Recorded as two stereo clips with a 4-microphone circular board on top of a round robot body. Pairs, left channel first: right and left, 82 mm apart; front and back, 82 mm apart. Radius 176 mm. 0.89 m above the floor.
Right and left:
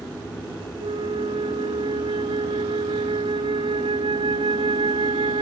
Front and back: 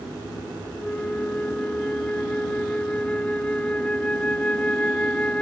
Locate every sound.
0.8 s a flute: 75° left